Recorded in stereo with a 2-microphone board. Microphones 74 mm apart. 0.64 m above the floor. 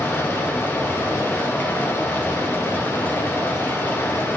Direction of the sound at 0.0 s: 30° left (ahead or behind).